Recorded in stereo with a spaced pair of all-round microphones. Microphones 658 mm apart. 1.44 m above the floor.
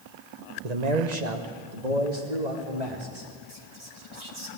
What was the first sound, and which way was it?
A man speaking, 75° right (ahead or behind).